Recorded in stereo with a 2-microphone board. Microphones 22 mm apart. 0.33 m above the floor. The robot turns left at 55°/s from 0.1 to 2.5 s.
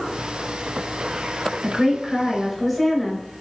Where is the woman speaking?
120° right, 1.1 m; by 3.2 s 170° right, 1.1 m.